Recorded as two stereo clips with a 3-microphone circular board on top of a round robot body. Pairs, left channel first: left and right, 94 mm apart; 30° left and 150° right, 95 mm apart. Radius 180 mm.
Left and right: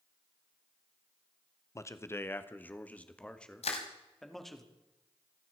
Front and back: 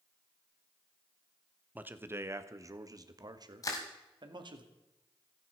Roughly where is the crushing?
Left.